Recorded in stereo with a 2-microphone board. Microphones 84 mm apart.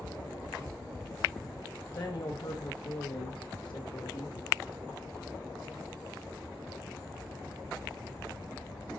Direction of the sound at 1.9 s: 50° left (ahead or behind).